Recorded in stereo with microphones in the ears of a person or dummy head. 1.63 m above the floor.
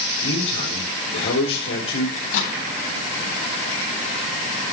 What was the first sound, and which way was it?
A man speaking, 75° left (ahead or behind).